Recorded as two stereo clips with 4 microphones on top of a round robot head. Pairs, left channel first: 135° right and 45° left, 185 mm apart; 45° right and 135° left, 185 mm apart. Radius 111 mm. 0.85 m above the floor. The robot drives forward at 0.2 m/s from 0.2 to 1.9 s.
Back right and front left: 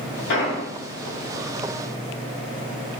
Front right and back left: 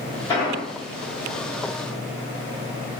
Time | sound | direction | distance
0.3 | an explosion | 120° right | 1.8 m